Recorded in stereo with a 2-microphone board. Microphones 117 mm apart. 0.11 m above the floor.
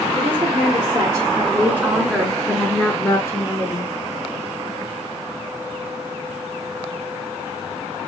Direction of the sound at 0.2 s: 40° right (ahead or behind).